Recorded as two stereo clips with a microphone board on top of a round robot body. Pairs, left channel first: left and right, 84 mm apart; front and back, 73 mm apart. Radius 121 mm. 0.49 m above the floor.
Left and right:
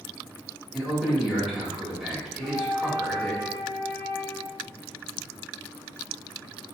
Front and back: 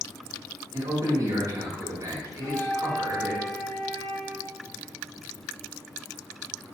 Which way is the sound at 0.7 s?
175° right.